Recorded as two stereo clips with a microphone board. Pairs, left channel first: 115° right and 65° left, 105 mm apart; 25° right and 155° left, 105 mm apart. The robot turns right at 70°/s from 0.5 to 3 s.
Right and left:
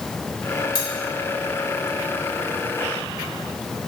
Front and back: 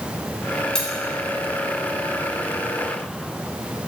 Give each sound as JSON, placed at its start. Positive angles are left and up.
{"t": 0.8, "sound": "cutlery clinking", "azimuth_deg": -100, "distance_m": 0.9}